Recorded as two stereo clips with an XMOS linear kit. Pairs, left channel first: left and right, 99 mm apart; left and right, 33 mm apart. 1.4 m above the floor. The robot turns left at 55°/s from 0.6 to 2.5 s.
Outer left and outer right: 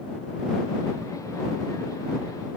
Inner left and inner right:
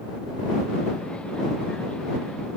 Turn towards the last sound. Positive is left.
No sound to turn to.